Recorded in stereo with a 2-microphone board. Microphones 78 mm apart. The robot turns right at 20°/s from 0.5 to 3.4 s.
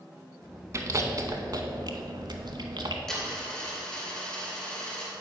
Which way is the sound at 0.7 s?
40° right (ahead or behind).